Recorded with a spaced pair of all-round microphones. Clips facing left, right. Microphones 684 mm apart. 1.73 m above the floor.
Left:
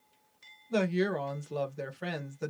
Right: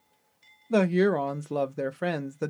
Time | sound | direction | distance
0.7 | a woman speaking | 80° right | 0.6 m